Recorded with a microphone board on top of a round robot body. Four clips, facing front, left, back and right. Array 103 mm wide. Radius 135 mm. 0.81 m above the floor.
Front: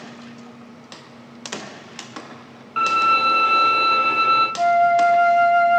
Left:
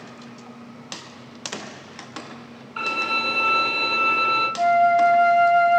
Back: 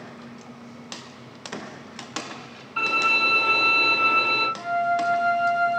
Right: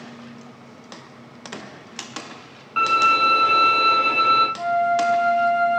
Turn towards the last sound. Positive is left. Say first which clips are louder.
# left 4 dB, front 9 dB
turn(degrees=25)